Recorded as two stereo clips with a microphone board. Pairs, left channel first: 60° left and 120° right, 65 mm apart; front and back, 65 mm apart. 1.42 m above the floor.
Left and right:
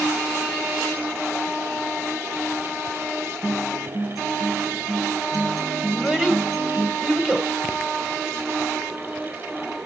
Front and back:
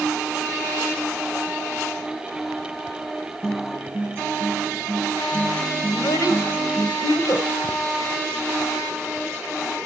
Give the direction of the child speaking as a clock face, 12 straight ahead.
1 o'clock.